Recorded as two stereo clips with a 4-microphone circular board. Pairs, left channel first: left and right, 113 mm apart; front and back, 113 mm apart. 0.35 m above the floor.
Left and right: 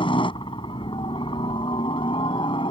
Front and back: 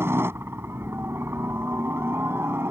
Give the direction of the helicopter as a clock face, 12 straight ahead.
8 o'clock.